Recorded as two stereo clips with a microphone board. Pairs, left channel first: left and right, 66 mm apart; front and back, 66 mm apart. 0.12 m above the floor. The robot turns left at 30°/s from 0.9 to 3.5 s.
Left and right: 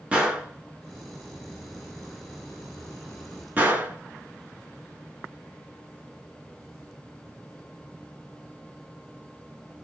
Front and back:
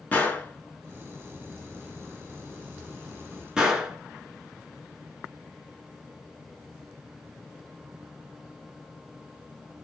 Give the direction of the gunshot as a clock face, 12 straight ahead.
1 o'clock.